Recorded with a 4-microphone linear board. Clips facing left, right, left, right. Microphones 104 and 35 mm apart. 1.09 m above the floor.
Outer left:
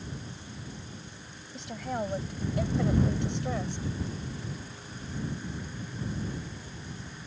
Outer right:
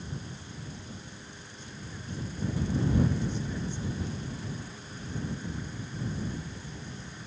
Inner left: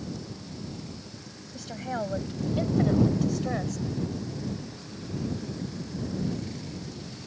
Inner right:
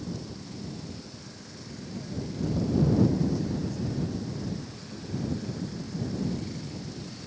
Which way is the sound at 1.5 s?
85° left.